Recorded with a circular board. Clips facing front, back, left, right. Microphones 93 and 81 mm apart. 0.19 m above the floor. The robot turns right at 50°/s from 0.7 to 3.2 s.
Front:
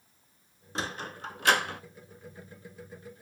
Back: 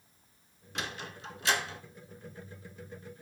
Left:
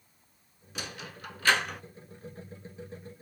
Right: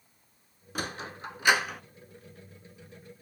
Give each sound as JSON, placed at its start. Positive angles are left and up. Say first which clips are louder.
{"t": 0.8, "sound": "a sliding door", "louder": "front 4 dB, right 5 dB", "azimuth_deg": -55, "distance_m": 0.6}